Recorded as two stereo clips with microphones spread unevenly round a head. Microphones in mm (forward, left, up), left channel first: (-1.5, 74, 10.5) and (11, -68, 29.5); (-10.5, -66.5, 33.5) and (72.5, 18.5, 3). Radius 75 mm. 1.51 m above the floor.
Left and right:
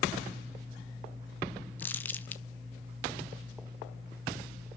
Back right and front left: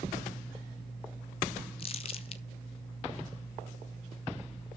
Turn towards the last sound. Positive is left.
turn(degrees=175)